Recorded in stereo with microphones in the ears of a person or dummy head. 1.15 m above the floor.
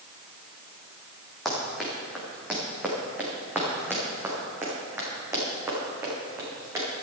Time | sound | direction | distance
1.4 | running footsteps | centre (ahead or behind) | 3.5 m